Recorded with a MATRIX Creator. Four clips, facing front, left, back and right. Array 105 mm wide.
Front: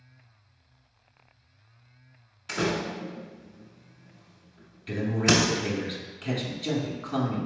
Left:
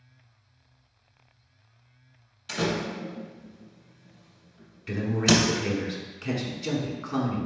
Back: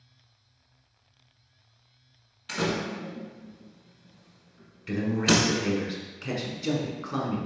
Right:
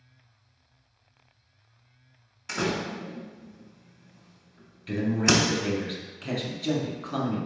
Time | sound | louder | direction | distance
2.5 | a door slam | left 1 dB, front 1 dB | 65° right | 1.1 m
4.9 | a man speaking | even, even | 130° left | 1.2 m